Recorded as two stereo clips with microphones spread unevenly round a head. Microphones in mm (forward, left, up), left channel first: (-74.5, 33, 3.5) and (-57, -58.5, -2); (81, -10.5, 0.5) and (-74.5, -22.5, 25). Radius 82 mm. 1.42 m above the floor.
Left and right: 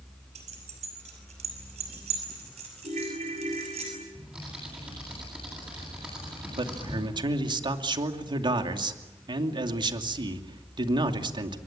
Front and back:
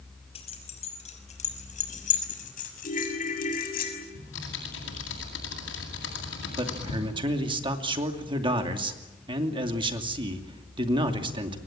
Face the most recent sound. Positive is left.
turn(degrees=-115)